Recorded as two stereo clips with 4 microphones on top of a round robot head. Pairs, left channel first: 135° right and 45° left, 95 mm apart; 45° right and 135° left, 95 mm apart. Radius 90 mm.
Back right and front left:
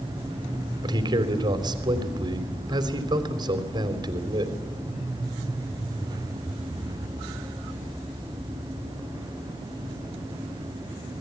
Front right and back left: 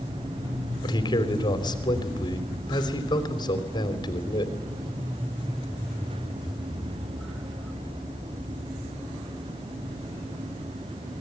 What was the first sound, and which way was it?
A man speaking, straight ahead.